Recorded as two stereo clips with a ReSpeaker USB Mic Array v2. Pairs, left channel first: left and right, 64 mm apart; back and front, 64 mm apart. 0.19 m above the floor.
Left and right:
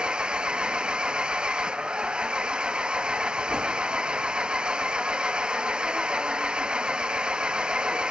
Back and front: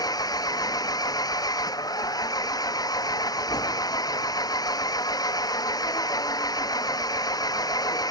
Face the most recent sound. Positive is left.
turn(degrees=-165)